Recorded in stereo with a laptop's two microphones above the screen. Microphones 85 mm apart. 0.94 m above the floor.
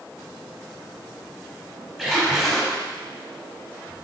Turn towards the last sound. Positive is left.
turn(degrees=0)  # may be behind; listen again after turning